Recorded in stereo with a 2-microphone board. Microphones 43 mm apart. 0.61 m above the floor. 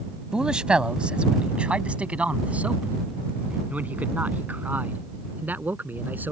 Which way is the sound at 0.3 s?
15° right (ahead or behind).